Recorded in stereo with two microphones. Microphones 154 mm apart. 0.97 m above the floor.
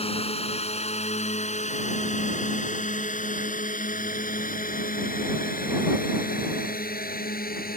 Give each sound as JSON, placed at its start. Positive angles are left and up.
{"t": 0.0, "sound": "a drone", "side_deg": 40}